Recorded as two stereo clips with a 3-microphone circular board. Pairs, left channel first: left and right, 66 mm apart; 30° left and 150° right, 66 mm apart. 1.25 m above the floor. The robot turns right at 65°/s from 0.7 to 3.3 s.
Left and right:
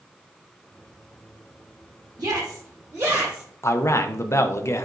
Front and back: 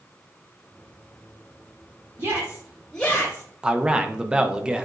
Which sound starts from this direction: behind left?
A man speaking, at 3.6 s.